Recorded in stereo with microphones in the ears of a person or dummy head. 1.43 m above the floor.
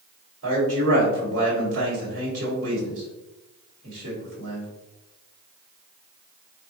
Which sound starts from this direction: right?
A man speaking, at 0.4 s.